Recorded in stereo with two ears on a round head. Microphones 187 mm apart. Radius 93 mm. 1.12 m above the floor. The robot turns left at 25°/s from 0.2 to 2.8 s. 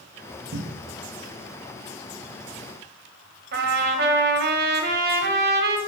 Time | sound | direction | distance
0.5 | a cupboard door | 55° right (ahead or behind) | 0.6 m
3.5 | a trumpet | 50° right (ahead or behind) | 1.0 m